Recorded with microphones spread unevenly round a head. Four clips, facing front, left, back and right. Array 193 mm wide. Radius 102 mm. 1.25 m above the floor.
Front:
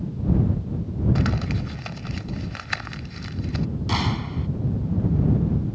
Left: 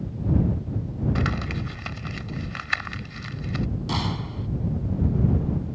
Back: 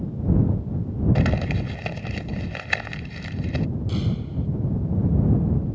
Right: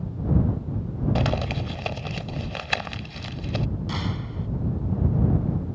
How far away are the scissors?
I don't hear scissors.